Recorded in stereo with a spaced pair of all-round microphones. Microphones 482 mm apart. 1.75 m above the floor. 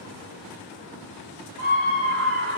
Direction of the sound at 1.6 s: 30° right (ahead or behind).